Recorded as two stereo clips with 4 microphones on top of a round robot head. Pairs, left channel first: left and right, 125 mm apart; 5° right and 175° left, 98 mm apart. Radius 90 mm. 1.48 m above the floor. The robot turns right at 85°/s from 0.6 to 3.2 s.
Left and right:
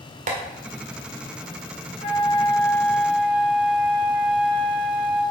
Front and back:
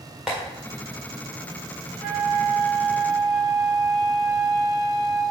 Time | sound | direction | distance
0.3 | tapping | 100° right | 1.7 m
2.0 | a flute | 95° left | 1.5 m